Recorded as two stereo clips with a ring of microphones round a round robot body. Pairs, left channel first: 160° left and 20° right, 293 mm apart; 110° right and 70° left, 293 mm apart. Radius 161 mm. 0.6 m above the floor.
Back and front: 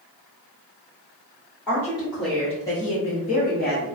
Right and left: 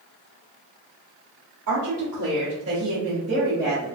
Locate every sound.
1.7 s a woman speaking: 60° left, 1.4 m; by 4.0 s 155° left, 1.0 m